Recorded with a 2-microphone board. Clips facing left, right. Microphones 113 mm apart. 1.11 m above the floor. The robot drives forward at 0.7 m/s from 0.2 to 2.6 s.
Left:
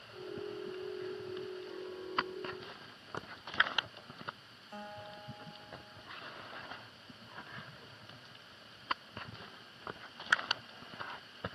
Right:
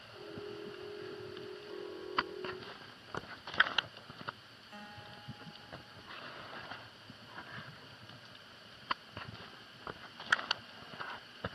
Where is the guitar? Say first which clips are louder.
Left 5 dB; 30° left (ahead or behind), 1.6 m.